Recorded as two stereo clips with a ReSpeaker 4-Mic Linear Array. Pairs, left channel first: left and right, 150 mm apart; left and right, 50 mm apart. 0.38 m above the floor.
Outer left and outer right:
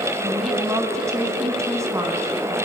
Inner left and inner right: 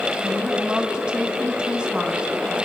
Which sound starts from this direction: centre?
A woman speaking, at 0.2 s.